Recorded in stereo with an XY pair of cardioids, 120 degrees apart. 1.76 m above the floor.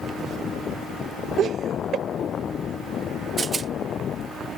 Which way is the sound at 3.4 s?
30° right.